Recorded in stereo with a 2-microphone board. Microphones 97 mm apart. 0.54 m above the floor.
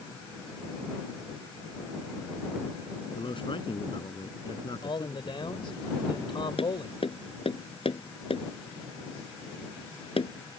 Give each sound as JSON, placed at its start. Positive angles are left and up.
{"t": 3.1, "sound": "a man speaking", "side_deg": 65}
{"t": 4.8, "sound": "a man speaking", "side_deg": 65}
{"t": 6.6, "sound": "tapping", "side_deg": 75}